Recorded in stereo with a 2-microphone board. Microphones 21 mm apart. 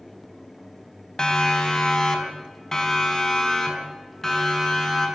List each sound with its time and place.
1.2 s a siren: 35° left (ahead or behind), 3.5 m; by 5.1 s 15° left (ahead or behind), 6.5 m